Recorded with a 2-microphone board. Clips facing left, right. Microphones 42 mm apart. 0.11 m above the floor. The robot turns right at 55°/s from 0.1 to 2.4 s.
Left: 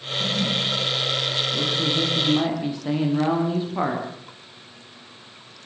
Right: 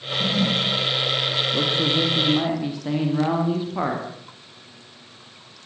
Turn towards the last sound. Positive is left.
turn(degrees=0)